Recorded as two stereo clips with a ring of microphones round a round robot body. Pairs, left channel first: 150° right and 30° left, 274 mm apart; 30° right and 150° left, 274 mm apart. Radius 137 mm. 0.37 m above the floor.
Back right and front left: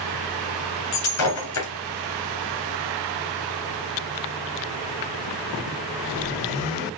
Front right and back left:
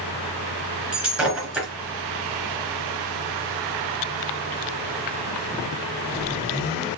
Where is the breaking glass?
125° right, 2.5 m.